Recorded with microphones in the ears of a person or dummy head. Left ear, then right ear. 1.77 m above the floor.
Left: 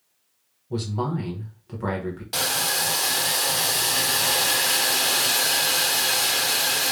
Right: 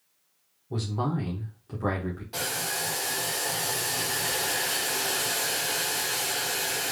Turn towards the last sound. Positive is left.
turn(degrees=35)  # may be behind; listen again after turning